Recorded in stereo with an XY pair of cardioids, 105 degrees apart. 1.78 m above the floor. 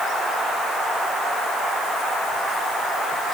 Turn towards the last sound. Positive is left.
No sound to turn to.